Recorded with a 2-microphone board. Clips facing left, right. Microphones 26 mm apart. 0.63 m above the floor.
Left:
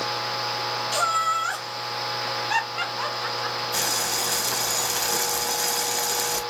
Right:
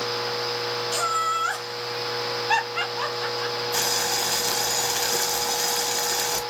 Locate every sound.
0.9 s laughter: 10° left (ahead or behind), 1.1 m; by 3.6 s 70° right (ahead or behind), 2 m
3.7 s boiling: 5° right (ahead or behind), 0.6 m